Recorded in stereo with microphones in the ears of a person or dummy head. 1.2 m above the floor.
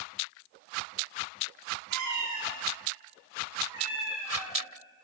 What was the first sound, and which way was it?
A cat meowing, 60° right (ahead or behind).